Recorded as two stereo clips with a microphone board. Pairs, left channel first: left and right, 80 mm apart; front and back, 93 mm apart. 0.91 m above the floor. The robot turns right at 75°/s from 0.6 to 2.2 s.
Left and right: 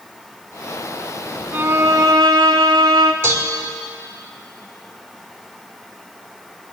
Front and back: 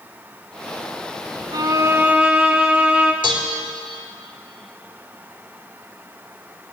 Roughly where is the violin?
Behind.